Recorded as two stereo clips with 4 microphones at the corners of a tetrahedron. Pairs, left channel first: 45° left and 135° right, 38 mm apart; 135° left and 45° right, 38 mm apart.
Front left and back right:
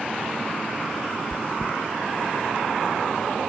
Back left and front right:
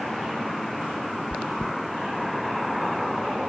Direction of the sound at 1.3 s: 65° left.